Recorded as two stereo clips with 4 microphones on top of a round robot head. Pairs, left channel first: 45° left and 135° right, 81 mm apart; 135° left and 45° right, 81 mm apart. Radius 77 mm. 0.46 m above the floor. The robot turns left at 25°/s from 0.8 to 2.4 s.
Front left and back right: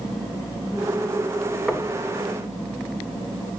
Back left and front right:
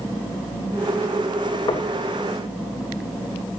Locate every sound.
1.7 s knocking: 135° left, 1.5 m; by 1.9 s 130° left, 1.5 m